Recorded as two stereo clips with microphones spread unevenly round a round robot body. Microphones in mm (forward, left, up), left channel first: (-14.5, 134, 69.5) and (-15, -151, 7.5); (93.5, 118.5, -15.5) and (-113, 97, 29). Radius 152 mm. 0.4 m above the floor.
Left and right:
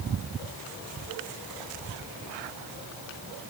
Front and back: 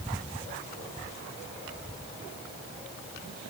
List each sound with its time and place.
Only background noise.